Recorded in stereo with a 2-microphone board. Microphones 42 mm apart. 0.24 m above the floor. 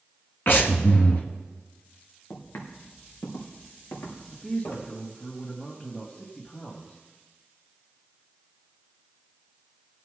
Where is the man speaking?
30° left (ahead or behind), 1.8 m.